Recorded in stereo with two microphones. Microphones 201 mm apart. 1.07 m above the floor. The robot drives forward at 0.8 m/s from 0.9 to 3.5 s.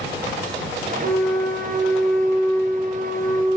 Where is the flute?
10° left (ahead or behind), 2.5 m; by 3.6 s 5° left (ahead or behind), 4.5 m.